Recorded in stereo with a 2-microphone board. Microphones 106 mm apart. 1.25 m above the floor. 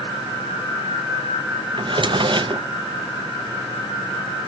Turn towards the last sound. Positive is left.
turn(degrees=-50)  # may be behind; listen again after turning